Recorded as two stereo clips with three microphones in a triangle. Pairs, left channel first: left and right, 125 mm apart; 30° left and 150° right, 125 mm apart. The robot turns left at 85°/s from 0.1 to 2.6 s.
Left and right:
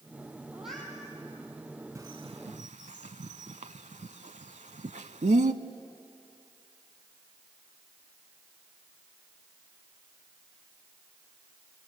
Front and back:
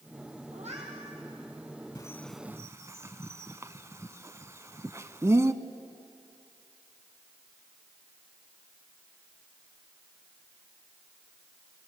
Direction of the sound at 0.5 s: 165° right.